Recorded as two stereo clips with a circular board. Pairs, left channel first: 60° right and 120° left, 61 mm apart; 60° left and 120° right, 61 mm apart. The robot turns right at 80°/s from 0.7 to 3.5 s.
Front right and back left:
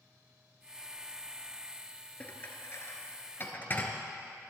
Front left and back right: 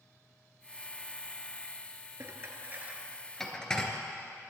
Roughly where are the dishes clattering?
Behind right.